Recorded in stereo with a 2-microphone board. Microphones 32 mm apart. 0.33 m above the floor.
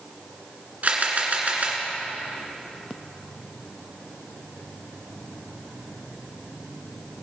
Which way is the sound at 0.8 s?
50° right (ahead or behind).